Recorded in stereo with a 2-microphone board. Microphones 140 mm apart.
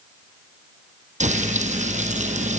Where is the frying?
60° right (ahead or behind), 4 m.